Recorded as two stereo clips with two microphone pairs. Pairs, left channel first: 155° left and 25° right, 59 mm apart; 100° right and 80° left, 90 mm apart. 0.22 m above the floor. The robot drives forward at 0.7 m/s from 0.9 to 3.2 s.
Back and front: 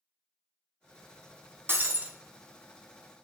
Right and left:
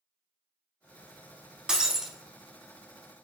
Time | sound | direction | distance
1.7 | breaking glass | 5° right | 0.7 m